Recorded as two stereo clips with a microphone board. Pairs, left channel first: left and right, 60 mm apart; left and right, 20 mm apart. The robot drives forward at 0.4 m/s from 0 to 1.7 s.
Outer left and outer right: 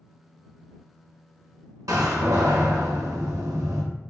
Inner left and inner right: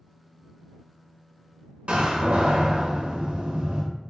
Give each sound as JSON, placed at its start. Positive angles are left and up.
{"t": 1.9, "sound": "a door slam", "side_deg": -80, "distance_m": 0.7}